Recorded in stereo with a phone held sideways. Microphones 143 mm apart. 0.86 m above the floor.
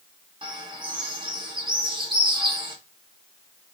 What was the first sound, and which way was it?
A bird, 35° right (ahead or behind).